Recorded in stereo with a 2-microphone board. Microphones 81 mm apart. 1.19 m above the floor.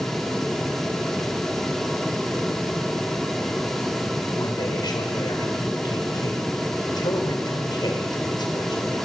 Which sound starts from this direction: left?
A man speaking, at 4.3 s.